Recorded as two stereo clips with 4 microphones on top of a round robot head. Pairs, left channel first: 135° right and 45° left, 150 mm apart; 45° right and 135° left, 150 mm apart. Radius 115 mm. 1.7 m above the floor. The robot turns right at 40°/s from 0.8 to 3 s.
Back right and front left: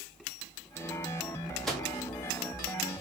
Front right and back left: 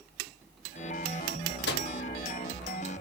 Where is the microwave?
45° right, 0.8 m; by 1.9 s 35° right, 0.8 m.